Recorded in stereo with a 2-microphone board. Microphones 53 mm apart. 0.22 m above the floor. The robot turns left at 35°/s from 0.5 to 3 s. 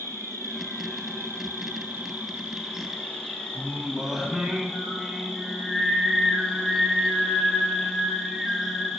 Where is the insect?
90° right, 1.0 m; by 9.0 s 175° right, 1.0 m.